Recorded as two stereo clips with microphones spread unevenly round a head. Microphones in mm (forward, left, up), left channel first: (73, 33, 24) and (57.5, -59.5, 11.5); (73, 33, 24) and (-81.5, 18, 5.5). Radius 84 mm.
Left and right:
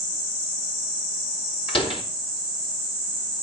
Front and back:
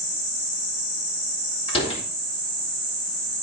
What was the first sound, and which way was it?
A door slam, 60° left.